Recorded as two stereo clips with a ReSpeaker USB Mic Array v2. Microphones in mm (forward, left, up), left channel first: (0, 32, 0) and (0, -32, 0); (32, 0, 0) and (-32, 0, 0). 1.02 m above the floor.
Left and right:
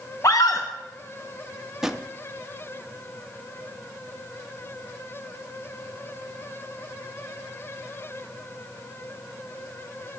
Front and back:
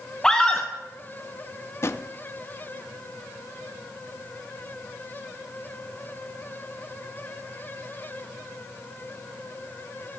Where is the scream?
80° left, 0.7 m.